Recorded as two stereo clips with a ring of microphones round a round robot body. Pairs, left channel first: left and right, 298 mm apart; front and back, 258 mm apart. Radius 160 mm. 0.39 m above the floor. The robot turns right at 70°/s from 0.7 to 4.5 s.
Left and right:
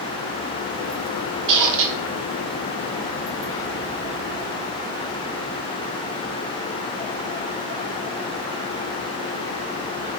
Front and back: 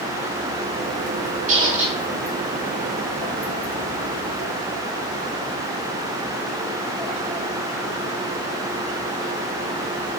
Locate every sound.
1.5 s a squeak: 115° right, 0.7 m; by 2.0 s 80° right, 0.7 m